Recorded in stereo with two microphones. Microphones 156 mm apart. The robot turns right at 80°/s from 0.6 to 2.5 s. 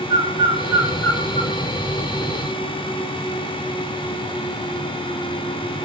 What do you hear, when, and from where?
0.1 s a bird: 25° right (ahead or behind), 0.8 m; by 1.5 s 45° left (ahead or behind), 0.8 m